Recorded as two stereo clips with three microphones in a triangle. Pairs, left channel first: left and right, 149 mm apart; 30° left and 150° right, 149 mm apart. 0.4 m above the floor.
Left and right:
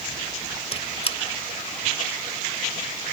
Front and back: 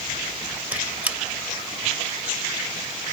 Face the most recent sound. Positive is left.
turn(degrees=135)